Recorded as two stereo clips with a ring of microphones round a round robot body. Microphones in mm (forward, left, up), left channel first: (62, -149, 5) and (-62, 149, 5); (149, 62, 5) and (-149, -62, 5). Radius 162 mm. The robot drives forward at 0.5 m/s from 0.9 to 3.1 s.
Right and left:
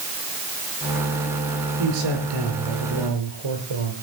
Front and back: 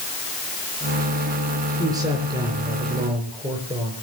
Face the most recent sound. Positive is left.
turn(degrees=130)